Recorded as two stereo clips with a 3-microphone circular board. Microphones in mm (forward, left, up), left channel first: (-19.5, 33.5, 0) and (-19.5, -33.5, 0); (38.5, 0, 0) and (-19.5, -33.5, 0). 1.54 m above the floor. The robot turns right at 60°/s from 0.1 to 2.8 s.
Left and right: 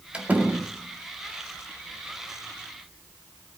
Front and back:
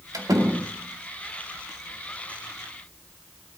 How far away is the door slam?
About 2 m.